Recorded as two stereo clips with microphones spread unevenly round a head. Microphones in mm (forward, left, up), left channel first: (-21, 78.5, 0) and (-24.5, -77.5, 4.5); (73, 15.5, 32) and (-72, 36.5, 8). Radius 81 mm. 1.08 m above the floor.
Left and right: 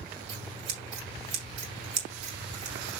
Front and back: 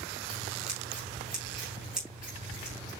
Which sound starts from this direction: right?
Scissors, at 0.3 s.